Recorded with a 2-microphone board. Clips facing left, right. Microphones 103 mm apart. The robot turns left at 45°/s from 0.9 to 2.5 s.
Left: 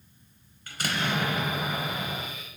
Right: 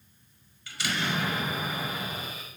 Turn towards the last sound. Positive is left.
turn(degrees=50)